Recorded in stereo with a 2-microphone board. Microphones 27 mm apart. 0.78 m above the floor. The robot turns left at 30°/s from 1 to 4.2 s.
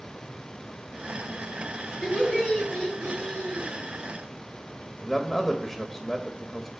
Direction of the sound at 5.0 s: 5° left (ahead or behind).